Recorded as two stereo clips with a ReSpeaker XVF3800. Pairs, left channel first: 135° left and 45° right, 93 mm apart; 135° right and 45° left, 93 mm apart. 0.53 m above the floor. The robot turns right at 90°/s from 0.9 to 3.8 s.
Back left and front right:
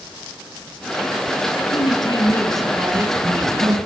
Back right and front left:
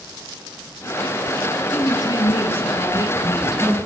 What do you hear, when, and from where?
1.7 s a woman speaking: 145° left, 6 m; by 3.8 s 25° right, 6 m